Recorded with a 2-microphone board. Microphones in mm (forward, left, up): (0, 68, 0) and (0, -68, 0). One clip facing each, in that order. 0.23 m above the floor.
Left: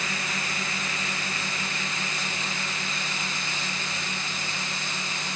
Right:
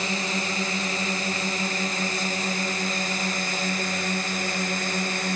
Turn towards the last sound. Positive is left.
turn(degrees=-50)  # may be behind; listen again after turning